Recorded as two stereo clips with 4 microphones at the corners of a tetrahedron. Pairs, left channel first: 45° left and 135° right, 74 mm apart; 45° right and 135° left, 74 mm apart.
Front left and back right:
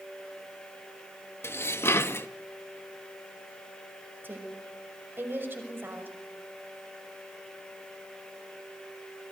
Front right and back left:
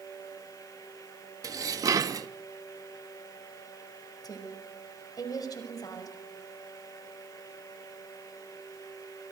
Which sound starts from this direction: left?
Dishes clattering, at 1.4 s.